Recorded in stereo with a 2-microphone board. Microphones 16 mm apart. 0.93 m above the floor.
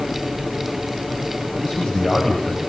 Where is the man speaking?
75° left (ahead or behind), 6.5 m.